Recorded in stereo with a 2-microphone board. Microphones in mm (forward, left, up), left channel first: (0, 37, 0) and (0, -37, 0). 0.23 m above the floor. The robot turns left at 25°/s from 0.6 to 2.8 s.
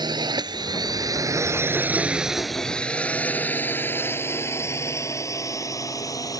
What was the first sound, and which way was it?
A drone, 75° right (ahead or behind).